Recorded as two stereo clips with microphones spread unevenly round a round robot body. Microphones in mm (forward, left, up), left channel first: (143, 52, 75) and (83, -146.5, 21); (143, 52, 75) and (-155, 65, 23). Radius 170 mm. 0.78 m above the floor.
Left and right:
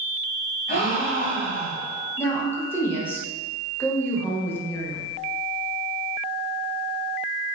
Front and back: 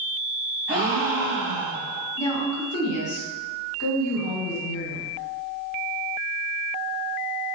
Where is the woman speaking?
20° right, 0.9 m.